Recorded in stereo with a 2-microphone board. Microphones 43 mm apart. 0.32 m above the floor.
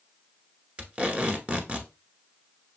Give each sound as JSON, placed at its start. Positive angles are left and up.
{"t": 0.8, "sound": "tape being pulled", "side_deg": -30, "distance_m": 0.9}